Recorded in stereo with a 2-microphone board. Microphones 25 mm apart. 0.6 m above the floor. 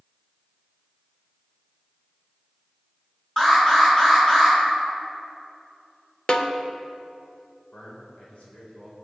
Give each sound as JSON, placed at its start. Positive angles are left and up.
{"t": 3.4, "sound": "an alarm", "side_deg": 25, "distance_m": 3.5}
{"t": 6.3, "sound": "a snare drum", "side_deg": 35, "distance_m": 0.8}
{"t": 7.7, "sound": "a man speaking", "side_deg": 60, "distance_m": 2.5}